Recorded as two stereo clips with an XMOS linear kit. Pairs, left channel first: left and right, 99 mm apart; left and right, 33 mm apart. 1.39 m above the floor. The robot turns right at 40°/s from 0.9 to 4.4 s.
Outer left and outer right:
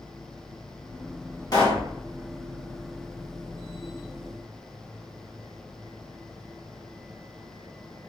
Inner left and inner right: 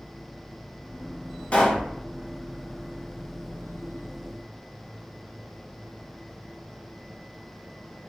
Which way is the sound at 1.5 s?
40° left (ahead or behind).